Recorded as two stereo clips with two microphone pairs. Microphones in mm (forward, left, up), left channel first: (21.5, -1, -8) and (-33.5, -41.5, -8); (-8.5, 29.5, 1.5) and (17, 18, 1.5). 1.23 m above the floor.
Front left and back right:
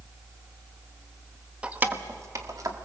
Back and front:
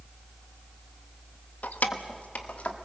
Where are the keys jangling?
145° left, 1.0 m; by 2.8 s 175° right, 1.9 m.